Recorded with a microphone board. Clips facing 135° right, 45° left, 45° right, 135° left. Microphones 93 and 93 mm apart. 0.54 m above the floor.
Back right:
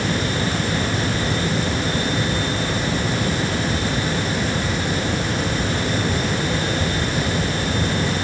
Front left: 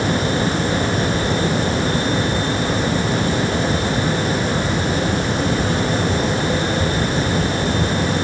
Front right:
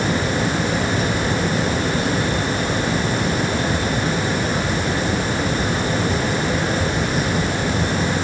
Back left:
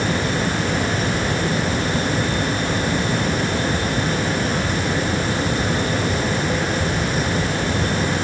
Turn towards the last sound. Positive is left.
No sound to turn to.